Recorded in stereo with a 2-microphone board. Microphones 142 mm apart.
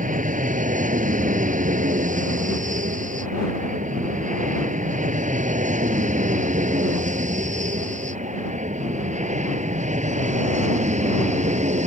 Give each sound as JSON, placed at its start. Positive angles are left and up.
{"t": 0.0, "sound": "an aircraft", "side_deg": -65}